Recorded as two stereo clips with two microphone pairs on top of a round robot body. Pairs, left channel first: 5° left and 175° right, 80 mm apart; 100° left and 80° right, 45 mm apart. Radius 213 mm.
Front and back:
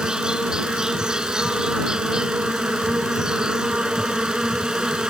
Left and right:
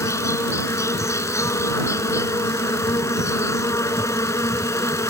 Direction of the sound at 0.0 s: 100° left.